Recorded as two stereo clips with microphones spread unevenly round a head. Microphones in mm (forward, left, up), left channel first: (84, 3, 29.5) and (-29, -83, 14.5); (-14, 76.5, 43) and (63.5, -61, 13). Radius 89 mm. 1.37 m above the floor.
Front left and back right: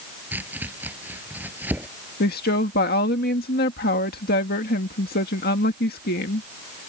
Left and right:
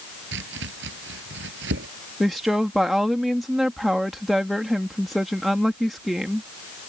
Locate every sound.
0.3 s chopping: 65° right
2.2 s a woman speaking: 30° left